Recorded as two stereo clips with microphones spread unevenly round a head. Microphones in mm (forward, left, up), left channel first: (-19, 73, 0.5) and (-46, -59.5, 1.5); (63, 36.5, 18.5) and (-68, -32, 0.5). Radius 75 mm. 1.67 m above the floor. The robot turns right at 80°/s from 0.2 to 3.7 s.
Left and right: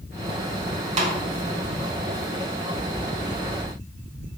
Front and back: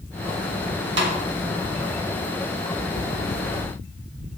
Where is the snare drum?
140° right, 2.5 m; by 1.2 s 120° right, 2.5 m.